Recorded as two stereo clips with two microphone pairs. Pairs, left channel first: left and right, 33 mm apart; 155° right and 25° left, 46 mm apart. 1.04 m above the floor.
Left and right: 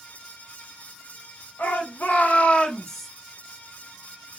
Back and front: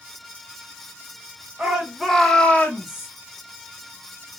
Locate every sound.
1.6 s a shout: 100° left, 1.5 m; by 3.1 s 175° right, 1.1 m